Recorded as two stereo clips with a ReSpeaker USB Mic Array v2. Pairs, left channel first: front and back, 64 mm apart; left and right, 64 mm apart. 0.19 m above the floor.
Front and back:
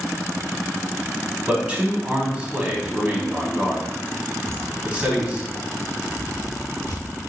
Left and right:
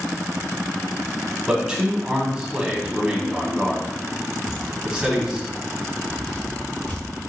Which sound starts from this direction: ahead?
Footsteps, at 4.4 s.